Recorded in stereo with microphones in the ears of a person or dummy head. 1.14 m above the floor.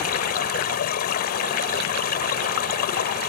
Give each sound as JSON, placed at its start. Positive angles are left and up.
{"t": 0.0, "sound": "running water", "side_deg": 50}